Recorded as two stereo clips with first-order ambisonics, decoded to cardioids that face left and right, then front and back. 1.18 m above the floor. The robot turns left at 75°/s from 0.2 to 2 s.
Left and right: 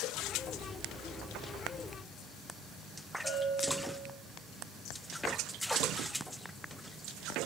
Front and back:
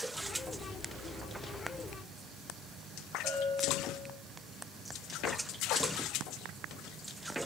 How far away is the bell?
About 1.1 m.